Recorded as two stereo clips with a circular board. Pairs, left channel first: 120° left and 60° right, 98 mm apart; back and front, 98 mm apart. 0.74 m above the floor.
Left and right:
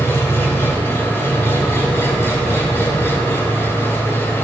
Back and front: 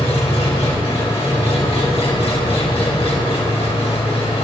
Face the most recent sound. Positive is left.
turn(degrees=-175)